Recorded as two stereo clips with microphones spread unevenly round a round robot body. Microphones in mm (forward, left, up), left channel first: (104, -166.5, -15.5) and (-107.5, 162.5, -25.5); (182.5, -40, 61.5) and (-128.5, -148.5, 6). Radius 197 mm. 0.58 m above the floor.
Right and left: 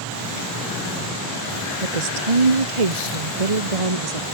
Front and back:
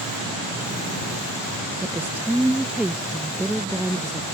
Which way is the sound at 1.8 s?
115° left.